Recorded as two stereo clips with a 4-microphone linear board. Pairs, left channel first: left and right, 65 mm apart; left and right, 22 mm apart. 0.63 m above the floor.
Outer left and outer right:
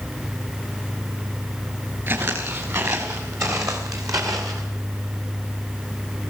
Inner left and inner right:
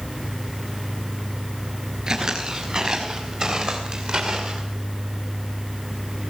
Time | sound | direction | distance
2.1 | footsteps | 35° right (ahead or behind) | 5 m